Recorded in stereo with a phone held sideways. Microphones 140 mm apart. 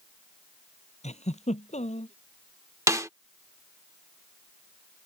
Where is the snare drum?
20° right (ahead or behind).